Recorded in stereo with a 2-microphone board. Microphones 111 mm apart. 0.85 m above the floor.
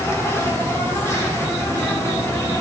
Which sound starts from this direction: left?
An insect, at 0.0 s.